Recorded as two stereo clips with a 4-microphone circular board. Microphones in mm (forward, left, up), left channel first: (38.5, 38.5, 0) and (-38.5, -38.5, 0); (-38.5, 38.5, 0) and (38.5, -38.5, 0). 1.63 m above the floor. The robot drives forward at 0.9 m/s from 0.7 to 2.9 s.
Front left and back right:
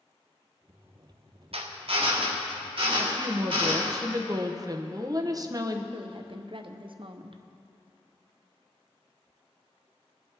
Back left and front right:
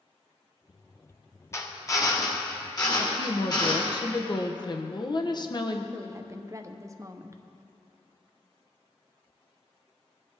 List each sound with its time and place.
1.5 s a drill: 160° right, 1.0 m; by 4.0 s 170° right, 2 m
3.0 s a woman speaking: 175° left, 0.9 m
5.9 s a woman speaking: 105° right, 0.8 m